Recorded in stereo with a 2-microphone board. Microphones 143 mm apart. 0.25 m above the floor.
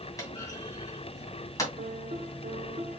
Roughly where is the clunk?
Left.